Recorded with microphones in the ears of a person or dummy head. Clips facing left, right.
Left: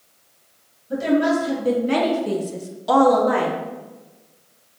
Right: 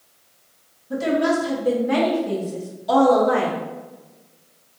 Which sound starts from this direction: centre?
A woman speaking, at 0.9 s.